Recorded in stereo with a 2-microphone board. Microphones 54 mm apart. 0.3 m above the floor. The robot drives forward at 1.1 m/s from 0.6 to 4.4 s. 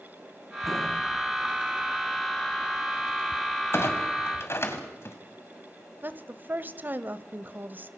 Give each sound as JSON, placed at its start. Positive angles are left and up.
{"t": 3.7, "sound": "a clunk", "side_deg": 50, "distance_m": 2.5}
{"t": 6.0, "sound": "a woman speaking", "side_deg": -40, "distance_m": 1.1}